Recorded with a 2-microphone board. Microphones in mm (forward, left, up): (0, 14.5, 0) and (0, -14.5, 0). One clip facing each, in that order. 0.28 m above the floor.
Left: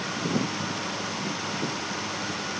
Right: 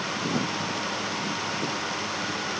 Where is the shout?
No shout in this recording.